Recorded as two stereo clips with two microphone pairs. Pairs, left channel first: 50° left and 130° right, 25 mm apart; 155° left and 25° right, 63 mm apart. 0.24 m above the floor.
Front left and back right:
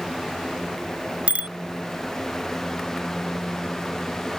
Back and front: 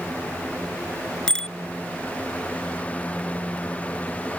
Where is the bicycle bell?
130° right.